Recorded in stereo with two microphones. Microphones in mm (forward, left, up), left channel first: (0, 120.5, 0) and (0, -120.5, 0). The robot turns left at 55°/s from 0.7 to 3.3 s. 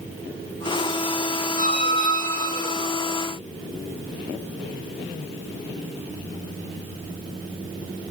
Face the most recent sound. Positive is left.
turn(degrees=-135)